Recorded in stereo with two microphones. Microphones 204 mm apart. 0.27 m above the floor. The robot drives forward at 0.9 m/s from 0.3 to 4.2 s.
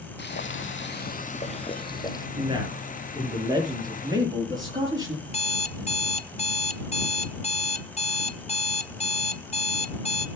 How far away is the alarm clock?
About 0.6 m.